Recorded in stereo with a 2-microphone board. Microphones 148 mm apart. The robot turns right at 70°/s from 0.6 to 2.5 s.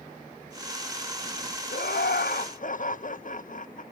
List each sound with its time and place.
1.7 s laughter: 65° left, 0.7 m; by 3.8 s 120° left, 0.7 m